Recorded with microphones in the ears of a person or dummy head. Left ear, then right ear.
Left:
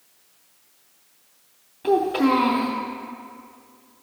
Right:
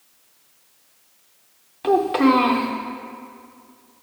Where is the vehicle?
No vehicle in this recording.